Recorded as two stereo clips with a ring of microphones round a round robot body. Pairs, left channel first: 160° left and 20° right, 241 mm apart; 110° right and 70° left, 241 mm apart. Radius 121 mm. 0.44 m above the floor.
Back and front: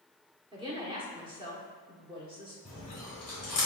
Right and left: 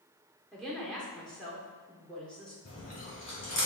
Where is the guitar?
I don't hear a guitar.